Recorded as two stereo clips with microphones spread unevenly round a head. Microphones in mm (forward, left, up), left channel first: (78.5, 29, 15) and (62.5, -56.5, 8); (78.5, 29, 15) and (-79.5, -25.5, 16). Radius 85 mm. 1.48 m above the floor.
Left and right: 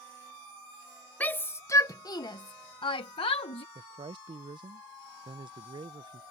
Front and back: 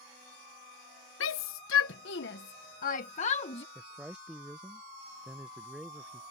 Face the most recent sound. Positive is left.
turn(degrees=-75)